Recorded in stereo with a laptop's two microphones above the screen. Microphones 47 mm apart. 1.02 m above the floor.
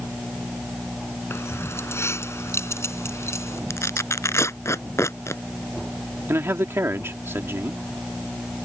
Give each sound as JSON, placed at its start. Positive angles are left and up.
{"t": 1.3, "sound": "keys jangling", "side_deg": 65}
{"t": 3.7, "sound": "tearing paper", "side_deg": 75}
{"t": 6.3, "sound": "a man speaking", "side_deg": -65}